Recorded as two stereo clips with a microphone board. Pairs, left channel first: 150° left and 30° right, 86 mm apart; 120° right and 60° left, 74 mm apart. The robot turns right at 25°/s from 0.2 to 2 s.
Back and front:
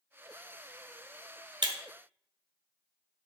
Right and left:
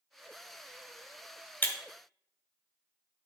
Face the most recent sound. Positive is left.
turn(degrees=-45)